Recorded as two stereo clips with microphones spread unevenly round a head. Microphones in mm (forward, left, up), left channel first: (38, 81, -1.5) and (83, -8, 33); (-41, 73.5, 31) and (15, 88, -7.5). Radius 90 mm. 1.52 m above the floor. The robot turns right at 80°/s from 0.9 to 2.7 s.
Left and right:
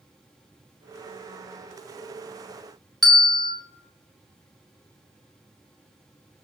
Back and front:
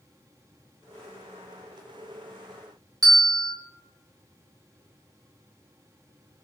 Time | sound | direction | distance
3.0 | a bell | 30° left | 1.5 m